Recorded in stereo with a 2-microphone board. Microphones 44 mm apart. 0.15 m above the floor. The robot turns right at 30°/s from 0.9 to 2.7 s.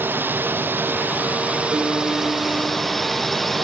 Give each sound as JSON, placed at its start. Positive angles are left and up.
{"t": 0.0, "sound": "a drone", "azimuth_deg": -50}
{"t": 1.7, "sound": "a piano", "side_deg": -50}